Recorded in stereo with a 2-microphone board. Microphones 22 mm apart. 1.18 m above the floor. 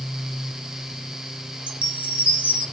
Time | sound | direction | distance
1.7 | a chime | 75° right (ahead or behind) | 3.5 m